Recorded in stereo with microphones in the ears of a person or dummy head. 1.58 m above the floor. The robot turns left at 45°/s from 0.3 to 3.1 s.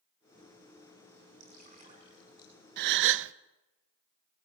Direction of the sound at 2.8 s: 50° right (ahead or behind).